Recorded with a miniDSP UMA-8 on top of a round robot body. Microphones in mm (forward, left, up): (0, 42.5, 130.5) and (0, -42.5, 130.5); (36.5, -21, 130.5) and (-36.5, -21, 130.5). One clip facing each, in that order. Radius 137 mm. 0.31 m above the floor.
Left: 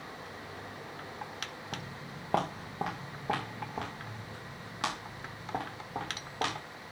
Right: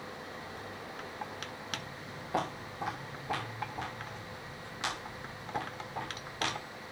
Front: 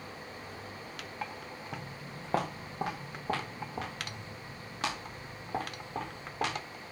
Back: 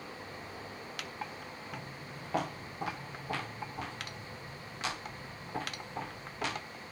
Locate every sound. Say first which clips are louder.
1.7 s footsteps: even, front 2 dB; 60° left, 2.5 m; by 6.6 s 45° left, 6 m